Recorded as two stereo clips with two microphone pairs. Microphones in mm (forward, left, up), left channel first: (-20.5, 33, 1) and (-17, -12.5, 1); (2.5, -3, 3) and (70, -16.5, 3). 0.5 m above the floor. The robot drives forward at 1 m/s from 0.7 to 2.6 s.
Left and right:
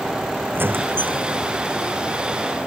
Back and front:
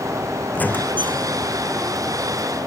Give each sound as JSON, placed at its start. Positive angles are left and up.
{"t": 0.5, "sound": "a squeak", "azimuth_deg": -125}